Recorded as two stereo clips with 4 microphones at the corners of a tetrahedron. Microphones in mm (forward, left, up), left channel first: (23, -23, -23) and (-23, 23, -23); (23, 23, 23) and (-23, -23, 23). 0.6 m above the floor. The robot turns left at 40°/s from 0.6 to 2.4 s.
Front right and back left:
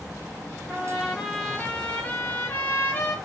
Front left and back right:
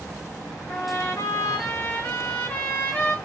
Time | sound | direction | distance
0.7 | a trumpet | 60° left | 0.7 m